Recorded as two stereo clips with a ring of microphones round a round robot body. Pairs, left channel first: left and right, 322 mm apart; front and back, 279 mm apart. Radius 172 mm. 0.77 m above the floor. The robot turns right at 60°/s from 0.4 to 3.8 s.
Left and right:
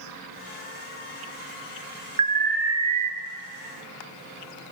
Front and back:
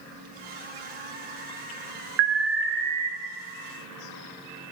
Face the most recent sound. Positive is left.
turn(degrees=-65)